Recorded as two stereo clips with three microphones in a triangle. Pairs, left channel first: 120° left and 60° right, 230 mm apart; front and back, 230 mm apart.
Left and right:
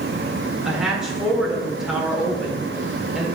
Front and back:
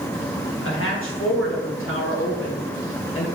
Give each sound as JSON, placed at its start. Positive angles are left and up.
{"t": 0.6, "sound": "a woman speaking", "azimuth_deg": 30, "distance_m": 2.0}